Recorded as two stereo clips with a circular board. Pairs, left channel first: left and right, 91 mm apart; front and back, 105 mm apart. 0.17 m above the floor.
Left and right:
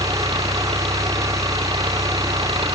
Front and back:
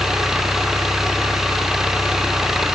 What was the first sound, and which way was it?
An engine running, 95° right.